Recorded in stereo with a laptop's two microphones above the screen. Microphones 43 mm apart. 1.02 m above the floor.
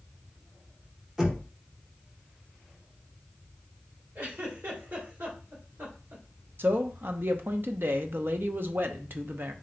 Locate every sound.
1.2 s knocking: 10° right (ahead or behind), 0.7 m
4.2 s a giggle: 70° right (ahead or behind), 2 m
6.6 s a man speaking: 55° right (ahead or behind), 0.5 m